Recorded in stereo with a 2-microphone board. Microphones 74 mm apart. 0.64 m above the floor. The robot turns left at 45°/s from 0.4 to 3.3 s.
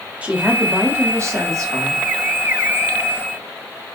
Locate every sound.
0.2 s a woman speaking: 25° right, 0.9 m; by 2.0 s 100° right, 0.9 m